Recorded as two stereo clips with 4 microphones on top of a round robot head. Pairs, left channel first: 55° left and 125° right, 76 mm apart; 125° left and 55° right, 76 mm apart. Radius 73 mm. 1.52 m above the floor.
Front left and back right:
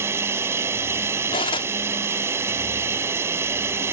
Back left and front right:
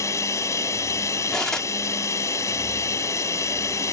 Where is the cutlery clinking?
40° left.